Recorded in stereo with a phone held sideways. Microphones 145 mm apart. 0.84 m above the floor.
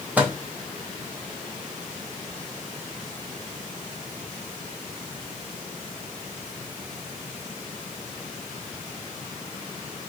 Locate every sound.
0.2 s a microwave: 10° right (ahead or behind), 0.6 m